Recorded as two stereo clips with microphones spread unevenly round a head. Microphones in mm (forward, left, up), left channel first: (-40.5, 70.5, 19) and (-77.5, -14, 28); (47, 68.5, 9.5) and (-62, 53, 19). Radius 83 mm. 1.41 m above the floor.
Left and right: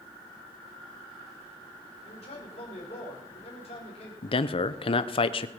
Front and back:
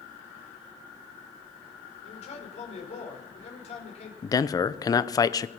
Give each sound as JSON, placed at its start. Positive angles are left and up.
{"t": 2.0, "sound": "a man speaking", "azimuth_deg": 30, "distance_m": 5.5}
{"t": 4.2, "sound": "a man speaking", "azimuth_deg": 60, "distance_m": 1.0}